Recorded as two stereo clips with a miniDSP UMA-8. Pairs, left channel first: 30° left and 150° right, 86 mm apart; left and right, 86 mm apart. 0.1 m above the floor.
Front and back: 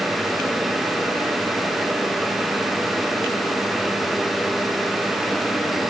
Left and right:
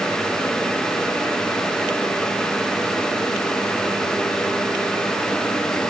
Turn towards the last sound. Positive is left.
No sound to turn to.